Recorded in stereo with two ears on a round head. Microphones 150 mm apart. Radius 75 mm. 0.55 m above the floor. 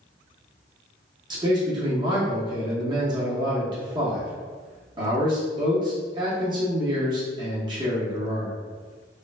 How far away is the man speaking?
About 1.0 m.